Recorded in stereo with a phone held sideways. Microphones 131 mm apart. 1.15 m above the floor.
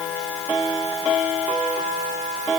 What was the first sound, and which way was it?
Only background noise.